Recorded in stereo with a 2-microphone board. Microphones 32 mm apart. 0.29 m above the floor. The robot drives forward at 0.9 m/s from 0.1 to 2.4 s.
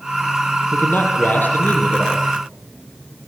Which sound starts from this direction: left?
A man speaking, at 0.7 s.